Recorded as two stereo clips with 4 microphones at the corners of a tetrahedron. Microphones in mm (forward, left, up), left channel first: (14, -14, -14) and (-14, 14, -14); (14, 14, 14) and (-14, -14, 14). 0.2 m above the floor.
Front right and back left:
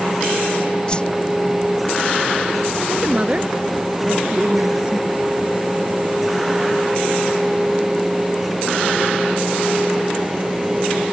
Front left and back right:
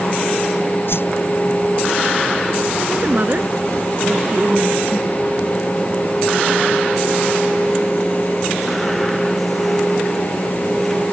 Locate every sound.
0.9 s a whoosh: 20° left
2.9 s a woman speaking: 170° right